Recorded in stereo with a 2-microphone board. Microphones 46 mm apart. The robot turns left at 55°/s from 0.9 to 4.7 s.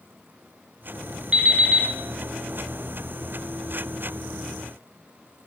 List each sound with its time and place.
1.3 s an alarm clock: 25° right (ahead or behind), 0.9 m; by 1.9 s 10° right (ahead or behind), 0.9 m